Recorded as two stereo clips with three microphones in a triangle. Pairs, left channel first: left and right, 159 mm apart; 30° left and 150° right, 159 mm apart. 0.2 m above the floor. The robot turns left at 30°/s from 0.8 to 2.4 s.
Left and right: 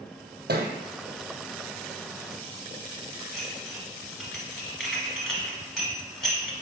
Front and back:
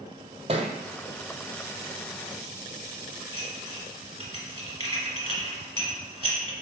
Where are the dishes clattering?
Straight behind, 0.9 m.